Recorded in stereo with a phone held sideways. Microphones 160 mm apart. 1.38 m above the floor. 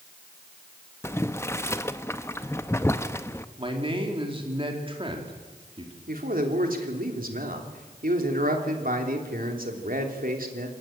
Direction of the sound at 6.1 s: 65° right (ahead or behind).